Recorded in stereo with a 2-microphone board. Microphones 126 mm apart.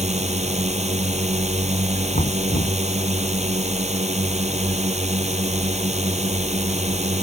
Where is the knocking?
75° left (ahead or behind).